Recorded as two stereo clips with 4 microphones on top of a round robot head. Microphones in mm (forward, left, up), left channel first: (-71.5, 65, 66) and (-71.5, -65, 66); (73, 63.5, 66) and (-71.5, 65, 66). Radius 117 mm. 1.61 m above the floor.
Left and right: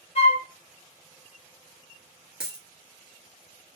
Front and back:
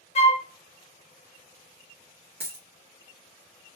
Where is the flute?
45° left, 0.5 m.